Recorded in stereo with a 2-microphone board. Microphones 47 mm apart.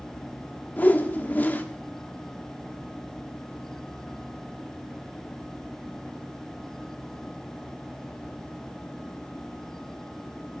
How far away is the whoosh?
About 1.5 m.